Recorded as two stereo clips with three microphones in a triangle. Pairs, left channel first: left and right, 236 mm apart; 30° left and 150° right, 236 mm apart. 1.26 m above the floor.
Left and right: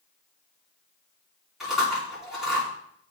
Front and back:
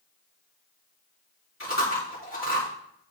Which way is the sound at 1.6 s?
Straight ahead.